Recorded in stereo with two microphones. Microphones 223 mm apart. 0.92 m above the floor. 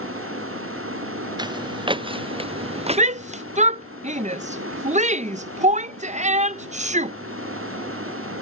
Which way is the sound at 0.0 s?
75° right (ahead or behind).